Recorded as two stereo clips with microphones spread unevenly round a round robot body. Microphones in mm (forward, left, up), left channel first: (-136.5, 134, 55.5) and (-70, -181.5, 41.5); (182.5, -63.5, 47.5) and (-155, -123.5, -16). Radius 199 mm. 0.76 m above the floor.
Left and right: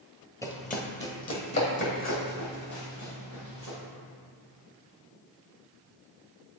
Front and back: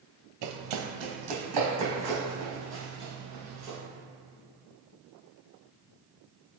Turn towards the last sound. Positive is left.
turn(degrees=130)